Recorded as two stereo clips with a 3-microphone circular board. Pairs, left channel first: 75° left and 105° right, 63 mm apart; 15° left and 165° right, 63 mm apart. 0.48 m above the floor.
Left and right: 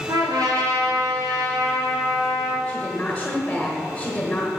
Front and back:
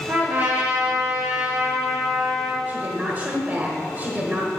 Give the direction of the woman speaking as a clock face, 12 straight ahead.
7 o'clock.